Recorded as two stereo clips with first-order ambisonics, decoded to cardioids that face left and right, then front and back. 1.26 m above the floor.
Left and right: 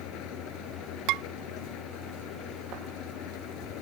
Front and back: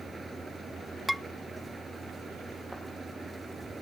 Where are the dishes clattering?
90° right.